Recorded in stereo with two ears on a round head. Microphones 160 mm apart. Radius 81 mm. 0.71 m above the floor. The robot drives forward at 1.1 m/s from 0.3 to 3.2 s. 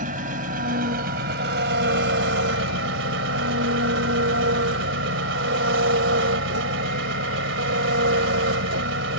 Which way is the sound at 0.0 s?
45° right (ahead or behind).